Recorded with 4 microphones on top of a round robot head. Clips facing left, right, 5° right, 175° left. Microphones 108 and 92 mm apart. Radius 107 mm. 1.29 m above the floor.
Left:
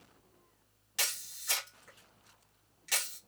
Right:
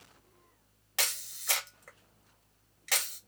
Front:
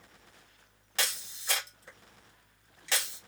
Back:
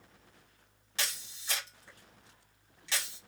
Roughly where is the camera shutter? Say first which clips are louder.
Right 4 dB, front 4 dB; ahead right.